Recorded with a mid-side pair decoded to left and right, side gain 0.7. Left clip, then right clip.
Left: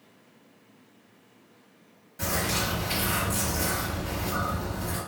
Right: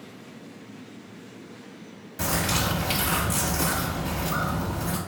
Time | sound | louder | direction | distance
2.2 | a bird | right 2 dB | 40° right | 1.3 m